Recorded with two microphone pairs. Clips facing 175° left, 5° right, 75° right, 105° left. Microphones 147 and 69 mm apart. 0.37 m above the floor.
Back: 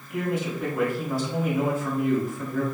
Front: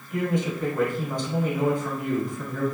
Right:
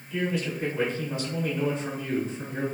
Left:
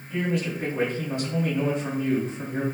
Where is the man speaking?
95° left, 1.7 m.